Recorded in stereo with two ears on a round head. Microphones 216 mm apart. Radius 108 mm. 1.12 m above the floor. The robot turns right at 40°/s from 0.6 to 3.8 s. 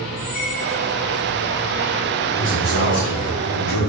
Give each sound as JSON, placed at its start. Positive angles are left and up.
{"t": 0.2, "sound": "a squeak", "side_deg": 85, "distance_m": 0.9}
{"t": 2.4, "sound": "a man speaking", "azimuth_deg": 30, "distance_m": 1.0}